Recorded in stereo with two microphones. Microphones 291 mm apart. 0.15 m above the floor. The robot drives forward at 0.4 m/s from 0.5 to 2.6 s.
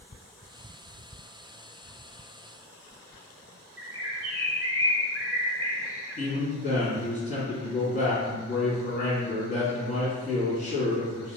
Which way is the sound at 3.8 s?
55° right (ahead or behind).